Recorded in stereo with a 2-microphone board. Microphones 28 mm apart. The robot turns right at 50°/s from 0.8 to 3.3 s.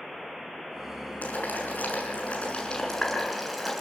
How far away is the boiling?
About 7.5 m.